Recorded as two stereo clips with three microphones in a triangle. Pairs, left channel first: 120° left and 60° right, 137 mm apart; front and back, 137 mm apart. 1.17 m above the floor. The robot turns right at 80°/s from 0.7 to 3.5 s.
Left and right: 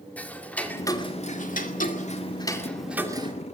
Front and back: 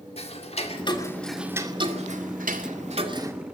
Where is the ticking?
40° left, 2 m; by 3.3 s 110° right, 2 m.